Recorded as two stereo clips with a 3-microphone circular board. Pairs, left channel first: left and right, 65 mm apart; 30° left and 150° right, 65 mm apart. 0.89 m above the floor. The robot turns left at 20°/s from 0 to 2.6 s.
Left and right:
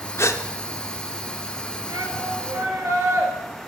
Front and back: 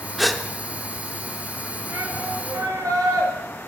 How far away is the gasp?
About 0.6 m.